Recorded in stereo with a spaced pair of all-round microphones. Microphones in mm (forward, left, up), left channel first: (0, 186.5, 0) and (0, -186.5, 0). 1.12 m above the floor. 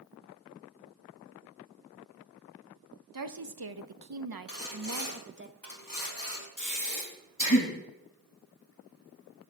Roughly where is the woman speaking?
Right.